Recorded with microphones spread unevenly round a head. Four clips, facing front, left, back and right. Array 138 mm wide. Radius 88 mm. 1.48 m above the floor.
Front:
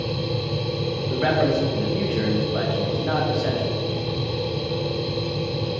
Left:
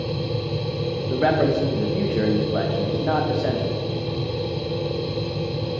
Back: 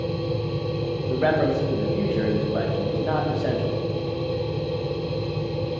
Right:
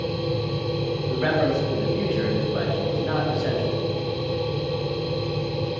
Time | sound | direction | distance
0.0 | a machine running | 25° left | 3 m
1.1 | a man speaking | 115° left | 1.1 m